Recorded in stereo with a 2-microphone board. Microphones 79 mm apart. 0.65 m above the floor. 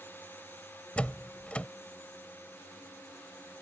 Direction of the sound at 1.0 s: 15° left (ahead or behind).